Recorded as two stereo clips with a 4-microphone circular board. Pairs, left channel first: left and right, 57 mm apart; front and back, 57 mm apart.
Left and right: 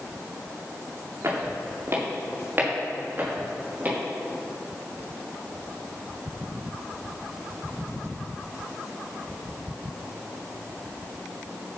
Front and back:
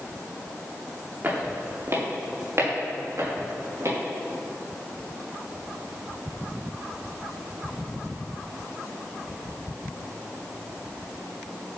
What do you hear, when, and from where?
1.2 s footsteps: 130° right, 4 m; by 4.0 s 155° right, 6.5 m